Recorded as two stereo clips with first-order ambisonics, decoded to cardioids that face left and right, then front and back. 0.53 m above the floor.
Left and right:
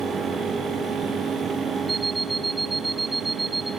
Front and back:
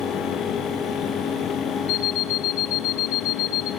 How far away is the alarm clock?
About 3.5 m.